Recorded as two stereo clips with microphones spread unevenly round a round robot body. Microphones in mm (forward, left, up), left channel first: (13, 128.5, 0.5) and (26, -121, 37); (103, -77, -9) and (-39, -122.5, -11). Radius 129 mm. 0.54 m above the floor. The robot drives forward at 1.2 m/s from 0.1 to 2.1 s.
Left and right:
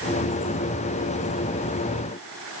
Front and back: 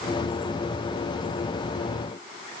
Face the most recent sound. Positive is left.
No sound to turn to.